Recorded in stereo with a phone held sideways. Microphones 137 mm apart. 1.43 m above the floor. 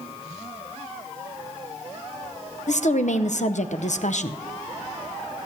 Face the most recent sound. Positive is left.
turn(degrees=65)  # may be behind; listen again after turning